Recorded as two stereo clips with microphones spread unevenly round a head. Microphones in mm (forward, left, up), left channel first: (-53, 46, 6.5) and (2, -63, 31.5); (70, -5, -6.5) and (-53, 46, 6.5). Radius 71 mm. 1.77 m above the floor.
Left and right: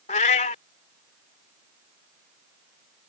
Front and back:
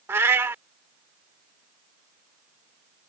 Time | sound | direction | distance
0.1 | a cat meowing | 105° left | ?